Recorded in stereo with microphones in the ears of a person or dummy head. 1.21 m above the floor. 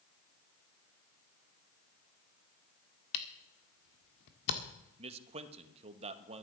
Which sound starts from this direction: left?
A camera shutter, at 3.1 s.